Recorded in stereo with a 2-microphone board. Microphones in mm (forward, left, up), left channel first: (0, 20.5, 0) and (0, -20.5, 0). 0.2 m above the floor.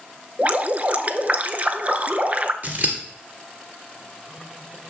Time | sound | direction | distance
0.4 | dripping | 45° right (ahead or behind) | 0.6 m
2.6 | scissors | 45° right (ahead or behind) | 1.8 m